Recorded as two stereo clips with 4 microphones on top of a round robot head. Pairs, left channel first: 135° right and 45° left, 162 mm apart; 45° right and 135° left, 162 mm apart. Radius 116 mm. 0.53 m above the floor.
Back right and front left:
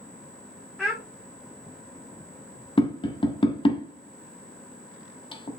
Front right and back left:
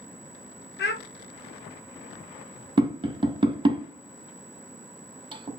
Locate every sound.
0.8 s a child speaking: 50° right, 1.0 m
2.8 s tapping: straight behind, 1.2 m